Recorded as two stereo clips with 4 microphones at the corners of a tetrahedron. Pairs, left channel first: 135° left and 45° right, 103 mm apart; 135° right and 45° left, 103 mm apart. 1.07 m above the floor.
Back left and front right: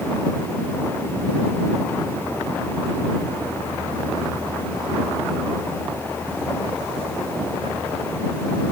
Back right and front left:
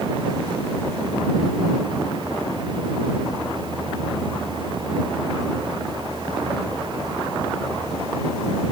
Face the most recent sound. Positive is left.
No sound to turn to.